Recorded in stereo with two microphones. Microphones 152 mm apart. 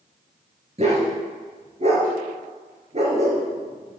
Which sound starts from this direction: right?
A dog barking, at 0.8 s.